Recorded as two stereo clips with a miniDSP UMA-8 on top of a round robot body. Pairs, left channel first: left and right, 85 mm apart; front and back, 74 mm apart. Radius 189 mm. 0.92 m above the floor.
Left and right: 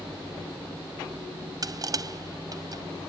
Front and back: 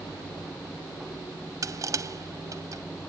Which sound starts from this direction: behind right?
Crushing, at 1.6 s.